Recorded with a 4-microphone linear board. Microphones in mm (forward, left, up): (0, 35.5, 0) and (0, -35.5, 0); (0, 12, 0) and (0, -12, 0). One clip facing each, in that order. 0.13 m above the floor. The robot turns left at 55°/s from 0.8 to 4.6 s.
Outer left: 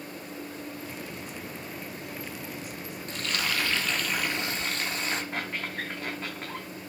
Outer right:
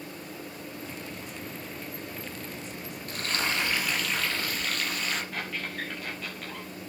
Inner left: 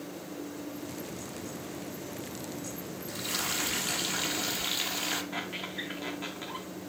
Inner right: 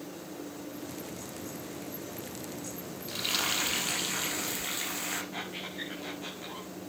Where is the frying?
130° right, 4 m; by 5.2 s 145° left, 4 m.